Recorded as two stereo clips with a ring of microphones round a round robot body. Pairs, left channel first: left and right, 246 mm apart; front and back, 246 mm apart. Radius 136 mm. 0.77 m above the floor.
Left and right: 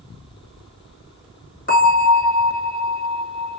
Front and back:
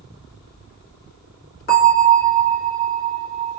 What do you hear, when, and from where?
1.7 s a bell: 45° left, 1.5 m